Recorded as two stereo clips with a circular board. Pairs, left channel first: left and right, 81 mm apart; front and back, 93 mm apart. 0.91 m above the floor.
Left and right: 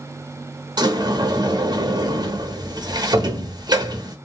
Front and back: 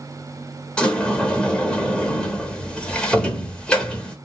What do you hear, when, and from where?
0.8 s a sliding door: 80° right, 0.9 m